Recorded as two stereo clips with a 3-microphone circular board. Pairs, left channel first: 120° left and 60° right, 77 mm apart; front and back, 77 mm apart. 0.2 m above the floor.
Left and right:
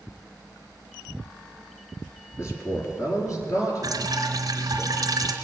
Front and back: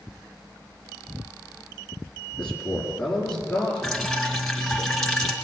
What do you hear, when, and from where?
2.4 s a man speaking: 75° left, 3 m; by 4.8 s 80° left, 5 m
3.8 s dripping: 85° right, 1.6 m